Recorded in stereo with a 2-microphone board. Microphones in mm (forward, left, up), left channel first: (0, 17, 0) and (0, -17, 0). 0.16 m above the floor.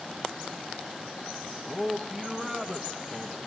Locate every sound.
1.7 s a man speaking: centre (ahead or behind), 1.2 m